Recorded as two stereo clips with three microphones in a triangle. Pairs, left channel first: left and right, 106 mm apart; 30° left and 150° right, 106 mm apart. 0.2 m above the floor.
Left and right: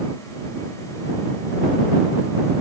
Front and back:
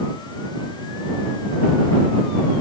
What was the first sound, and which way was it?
Only background noise.